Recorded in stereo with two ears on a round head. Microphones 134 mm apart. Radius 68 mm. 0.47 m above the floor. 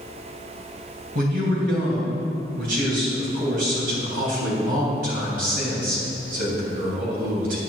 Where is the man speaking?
70° right (ahead or behind), 3.5 m.